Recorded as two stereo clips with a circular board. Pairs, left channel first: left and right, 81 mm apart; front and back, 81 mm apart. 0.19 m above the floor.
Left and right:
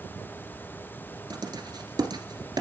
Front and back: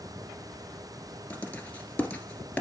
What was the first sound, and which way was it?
Writing, 70° right.